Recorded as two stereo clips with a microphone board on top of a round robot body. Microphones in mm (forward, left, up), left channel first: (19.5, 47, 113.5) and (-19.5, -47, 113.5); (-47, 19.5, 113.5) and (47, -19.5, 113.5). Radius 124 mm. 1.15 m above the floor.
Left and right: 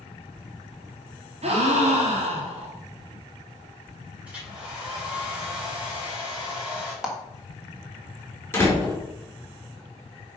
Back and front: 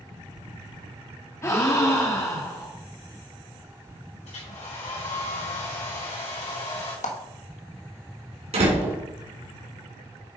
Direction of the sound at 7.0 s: 165° left.